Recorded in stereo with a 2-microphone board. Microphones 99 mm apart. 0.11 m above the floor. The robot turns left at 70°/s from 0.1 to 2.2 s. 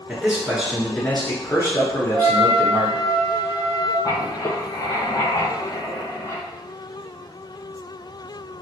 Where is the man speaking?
20° right (ahead or behind), 1.1 m; by 3.0 s 25° left (ahead or behind), 1.1 m.